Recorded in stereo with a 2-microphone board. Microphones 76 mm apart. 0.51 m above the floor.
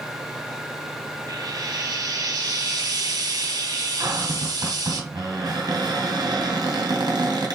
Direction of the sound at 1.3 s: 65° right (ahead or behind).